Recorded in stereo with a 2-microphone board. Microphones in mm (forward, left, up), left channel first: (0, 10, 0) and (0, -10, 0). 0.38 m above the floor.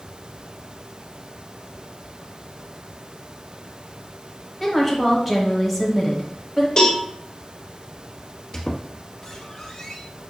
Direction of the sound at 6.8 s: 40° left (ahead or behind).